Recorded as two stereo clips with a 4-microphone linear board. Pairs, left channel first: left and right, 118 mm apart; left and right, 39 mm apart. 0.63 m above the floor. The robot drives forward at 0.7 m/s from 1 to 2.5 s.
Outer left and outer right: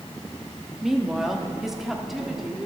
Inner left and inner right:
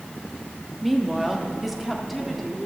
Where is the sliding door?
I don't hear a sliding door.